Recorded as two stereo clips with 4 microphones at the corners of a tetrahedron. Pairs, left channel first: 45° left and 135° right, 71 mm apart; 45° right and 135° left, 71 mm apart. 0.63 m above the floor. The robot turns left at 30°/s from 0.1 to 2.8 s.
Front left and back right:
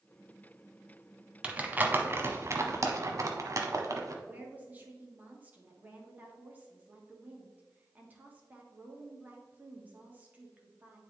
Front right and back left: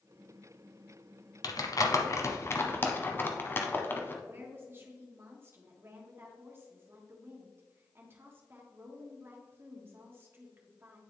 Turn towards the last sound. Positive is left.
turn(degrees=170)